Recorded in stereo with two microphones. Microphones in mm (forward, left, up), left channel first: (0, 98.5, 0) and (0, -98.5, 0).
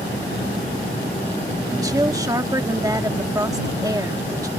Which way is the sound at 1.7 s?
20° right (ahead or behind).